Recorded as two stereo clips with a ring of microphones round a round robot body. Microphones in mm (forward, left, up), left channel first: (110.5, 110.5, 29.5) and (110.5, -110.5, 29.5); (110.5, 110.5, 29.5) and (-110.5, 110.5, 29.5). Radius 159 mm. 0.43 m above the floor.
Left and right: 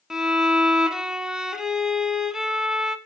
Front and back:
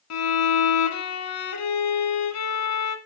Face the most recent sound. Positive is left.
turn(degrees=0)